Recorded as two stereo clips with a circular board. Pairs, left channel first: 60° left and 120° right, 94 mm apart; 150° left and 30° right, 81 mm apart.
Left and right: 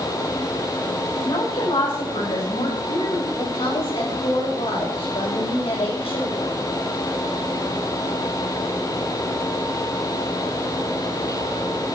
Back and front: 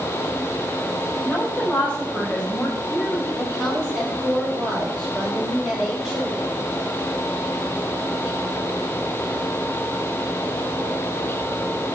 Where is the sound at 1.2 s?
75° left, 6 m.